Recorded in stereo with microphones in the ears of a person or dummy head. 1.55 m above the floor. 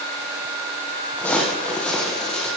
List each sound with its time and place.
1.2 s footsteps: 10° left (ahead or behind), 3 m; by 2.5 s 5° left (ahead or behind), 3.5 m